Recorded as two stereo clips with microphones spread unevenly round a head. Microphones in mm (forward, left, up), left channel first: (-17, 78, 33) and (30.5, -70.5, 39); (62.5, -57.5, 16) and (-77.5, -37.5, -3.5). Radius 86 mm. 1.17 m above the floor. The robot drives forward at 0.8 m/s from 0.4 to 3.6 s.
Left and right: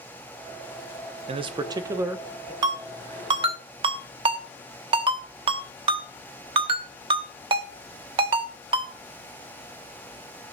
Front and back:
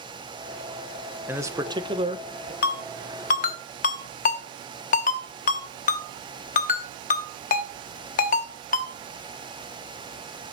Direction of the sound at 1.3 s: 120° right.